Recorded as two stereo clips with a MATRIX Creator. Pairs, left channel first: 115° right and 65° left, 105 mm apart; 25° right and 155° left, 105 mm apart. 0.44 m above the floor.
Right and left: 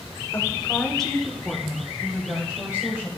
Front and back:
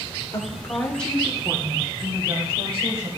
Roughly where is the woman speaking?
Ahead right.